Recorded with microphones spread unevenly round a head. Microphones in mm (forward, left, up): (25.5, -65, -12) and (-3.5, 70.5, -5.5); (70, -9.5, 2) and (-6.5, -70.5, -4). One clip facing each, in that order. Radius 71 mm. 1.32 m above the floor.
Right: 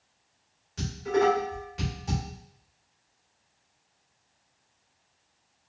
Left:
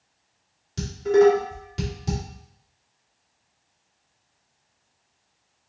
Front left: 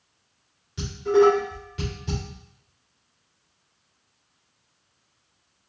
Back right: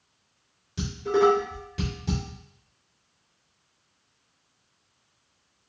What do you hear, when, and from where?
0.8 s dishes clattering: 155° left, 2.5 m